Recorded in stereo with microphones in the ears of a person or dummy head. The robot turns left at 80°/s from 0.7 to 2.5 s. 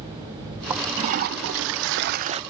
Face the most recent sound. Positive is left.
turn(degrees=-155)